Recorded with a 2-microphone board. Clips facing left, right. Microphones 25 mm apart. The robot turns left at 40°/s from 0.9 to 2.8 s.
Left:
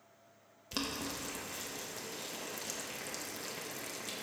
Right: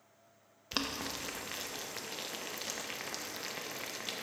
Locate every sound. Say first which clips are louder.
0.7 s boiling: right 2 dB; 30° right (ahead or behind), 0.7 m; by 4.2 s 35° right (ahead or behind), 0.7 m